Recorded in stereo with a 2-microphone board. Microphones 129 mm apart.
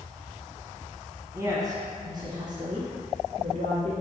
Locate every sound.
1.3 s a woman speaking: 20° right (ahead or behind), 1.3 m; by 3.9 s 40° right (ahead or behind), 2.5 m